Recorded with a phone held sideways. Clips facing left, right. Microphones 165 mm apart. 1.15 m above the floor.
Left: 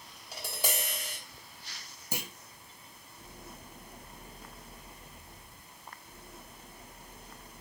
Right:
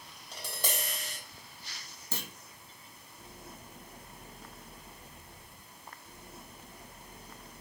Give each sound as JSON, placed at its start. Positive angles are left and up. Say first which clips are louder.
{"t": 0.3, "sound": "tapping", "louder": "left 2 dB", "side_deg": 10, "distance_m": 3.0}
{"t": 2.1, "sound": "a clunk", "louder": "left 3 dB", "side_deg": 15, "distance_m": 1.2}